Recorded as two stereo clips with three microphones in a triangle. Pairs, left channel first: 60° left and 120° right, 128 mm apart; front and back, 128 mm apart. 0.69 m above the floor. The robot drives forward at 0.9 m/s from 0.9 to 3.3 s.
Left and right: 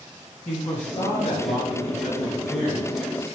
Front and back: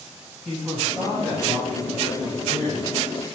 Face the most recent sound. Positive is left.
turn(degrees=105)